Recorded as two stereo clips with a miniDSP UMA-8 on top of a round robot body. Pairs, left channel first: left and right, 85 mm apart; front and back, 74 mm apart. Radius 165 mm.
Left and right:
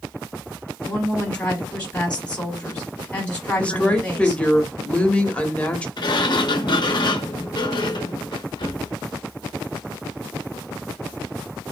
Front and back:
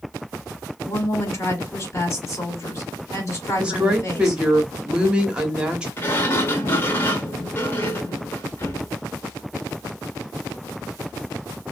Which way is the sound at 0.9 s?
20° left.